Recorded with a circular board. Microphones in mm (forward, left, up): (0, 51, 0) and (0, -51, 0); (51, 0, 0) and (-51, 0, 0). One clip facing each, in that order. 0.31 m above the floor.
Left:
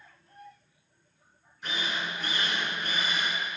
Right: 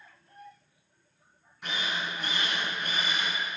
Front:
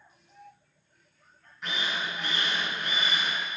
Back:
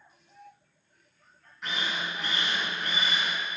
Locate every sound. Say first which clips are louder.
1.6 s a drill: even, even; 90° right, 3.5 m